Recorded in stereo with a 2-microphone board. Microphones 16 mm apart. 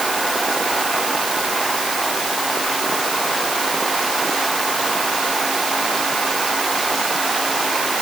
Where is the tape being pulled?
No tape being pulled in this recording.